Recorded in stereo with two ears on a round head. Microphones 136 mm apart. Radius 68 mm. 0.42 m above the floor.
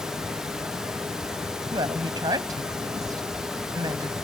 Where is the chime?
I don't hear a chime.